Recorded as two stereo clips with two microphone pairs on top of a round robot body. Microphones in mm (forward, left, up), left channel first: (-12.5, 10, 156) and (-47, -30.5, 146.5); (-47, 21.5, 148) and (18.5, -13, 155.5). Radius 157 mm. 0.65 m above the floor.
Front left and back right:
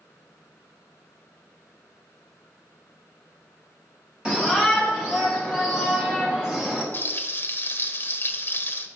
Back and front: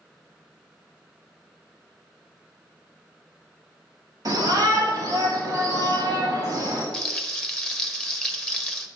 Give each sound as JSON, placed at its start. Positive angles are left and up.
{"t": 4.2, "sound": "a shout", "azimuth_deg": -60, "distance_m": 3.0}
{"t": 6.9, "sound": "frying", "azimuth_deg": 85, "distance_m": 1.2}